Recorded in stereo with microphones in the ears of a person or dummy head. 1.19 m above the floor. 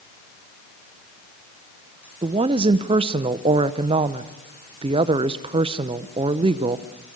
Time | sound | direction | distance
2.2 | a woman speaking | 25° right (ahead or behind) | 0.8 m